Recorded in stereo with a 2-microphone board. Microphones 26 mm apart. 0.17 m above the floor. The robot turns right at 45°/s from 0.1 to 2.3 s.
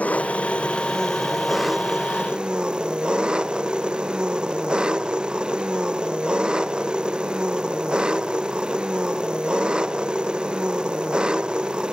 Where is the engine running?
115° left; by 11.9 s 145° right.